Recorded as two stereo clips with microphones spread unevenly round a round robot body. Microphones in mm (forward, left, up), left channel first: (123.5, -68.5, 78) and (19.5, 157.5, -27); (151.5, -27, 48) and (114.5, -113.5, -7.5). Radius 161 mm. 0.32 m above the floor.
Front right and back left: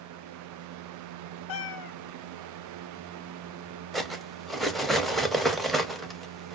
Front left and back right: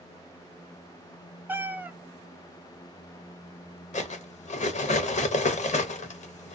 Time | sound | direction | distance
1.5 | a cat meowing | 65° right | 0.6 m
3.9 | cutlery clinking | 45° left | 0.6 m